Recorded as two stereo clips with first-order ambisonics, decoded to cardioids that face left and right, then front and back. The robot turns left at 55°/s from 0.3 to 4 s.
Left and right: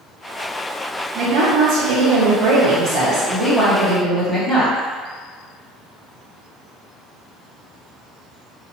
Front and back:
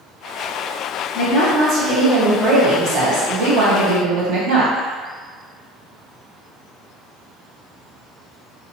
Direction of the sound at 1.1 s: 40° right.